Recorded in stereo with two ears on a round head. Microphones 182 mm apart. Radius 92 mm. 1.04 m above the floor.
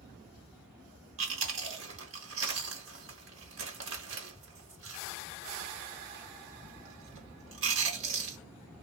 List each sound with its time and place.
1.2 s chewing: 65° right (ahead or behind), 1.4 m